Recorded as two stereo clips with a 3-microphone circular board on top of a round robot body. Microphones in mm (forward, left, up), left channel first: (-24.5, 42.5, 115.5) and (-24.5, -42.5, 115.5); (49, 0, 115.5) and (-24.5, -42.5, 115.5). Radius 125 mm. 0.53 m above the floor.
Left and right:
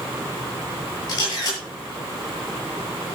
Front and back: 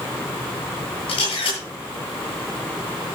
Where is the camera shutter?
45° left, 8.5 m.